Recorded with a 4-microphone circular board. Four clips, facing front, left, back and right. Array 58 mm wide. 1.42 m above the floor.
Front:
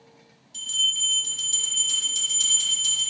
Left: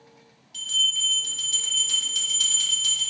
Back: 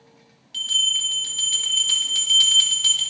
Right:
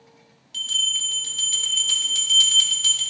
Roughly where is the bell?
Behind.